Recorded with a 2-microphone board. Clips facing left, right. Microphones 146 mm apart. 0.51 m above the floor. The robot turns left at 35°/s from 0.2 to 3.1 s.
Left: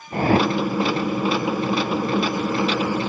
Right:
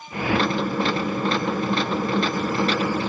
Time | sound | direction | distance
0.1 | a whoosh | 40° left (ahead or behind) | ?